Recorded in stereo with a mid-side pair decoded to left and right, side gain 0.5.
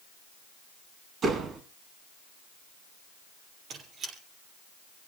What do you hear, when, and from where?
1.2 s a door slam: 55° right, 9 m
3.7 s a squeak: 60° right, 5.5 m